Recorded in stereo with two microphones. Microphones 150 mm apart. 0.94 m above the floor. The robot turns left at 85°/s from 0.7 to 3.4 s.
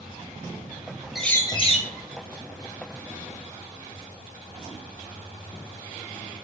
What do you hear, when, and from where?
1.1 s a bird: straight behind, 0.8 m; by 1.9 s 120° left, 0.8 m